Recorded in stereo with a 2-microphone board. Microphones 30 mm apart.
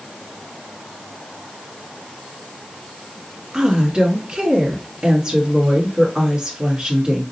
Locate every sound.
3.5 s a woman speaking: 30° right (ahead or behind), 1.5 m